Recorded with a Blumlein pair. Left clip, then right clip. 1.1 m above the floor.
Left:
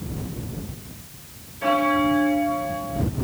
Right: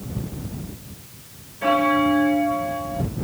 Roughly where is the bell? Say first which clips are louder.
Right 2 dB; ahead.